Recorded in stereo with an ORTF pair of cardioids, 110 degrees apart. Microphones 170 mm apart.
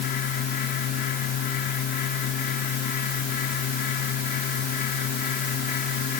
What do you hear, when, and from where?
0.0 s a fan: 70° left